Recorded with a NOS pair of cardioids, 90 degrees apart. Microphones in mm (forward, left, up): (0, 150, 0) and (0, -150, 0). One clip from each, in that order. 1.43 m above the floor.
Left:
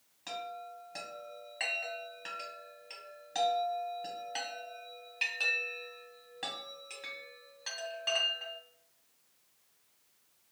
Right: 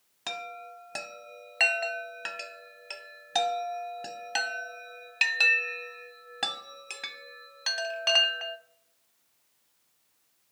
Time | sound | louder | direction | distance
0.3 | a chime | right 4 dB | 55° right | 0.6 m